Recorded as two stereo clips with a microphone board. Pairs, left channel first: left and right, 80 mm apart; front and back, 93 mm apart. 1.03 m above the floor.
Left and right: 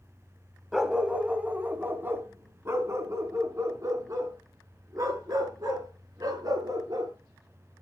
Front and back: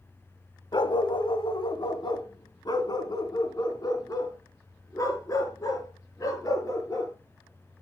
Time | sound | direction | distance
0.7 | a dog barking | 5° right | 1.3 m